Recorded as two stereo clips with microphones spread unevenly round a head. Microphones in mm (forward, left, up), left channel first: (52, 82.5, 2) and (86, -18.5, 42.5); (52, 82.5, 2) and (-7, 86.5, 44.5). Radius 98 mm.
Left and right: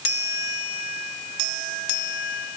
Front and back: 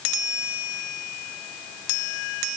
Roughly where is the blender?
I don't hear a blender.